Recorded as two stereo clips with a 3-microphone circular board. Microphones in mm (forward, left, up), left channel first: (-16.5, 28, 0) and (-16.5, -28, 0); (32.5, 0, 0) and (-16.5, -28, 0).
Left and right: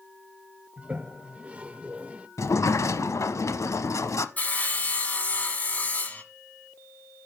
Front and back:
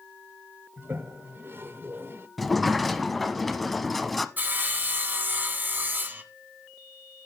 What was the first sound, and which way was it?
A toilet flushing, 145° right.